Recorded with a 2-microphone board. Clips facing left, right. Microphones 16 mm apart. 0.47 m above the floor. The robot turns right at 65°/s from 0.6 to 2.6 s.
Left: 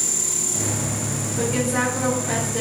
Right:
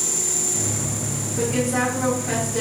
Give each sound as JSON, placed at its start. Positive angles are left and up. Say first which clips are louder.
{"t": 1.4, "sound": "a woman speaking", "louder": "right 1 dB", "side_deg": -15, "distance_m": 1.4}